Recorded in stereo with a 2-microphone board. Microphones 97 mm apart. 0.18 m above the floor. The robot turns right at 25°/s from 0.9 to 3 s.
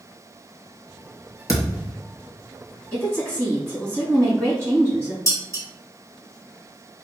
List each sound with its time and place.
1.5 s a thud: 35° left (ahead or behind), 0.7 m; by 1.9 s 45° left (ahead or behind), 0.7 m
2.9 s a woman speaking: 30° left (ahead or behind), 1.8 m
5.3 s dishes clattering: 30° left (ahead or behind), 1.4 m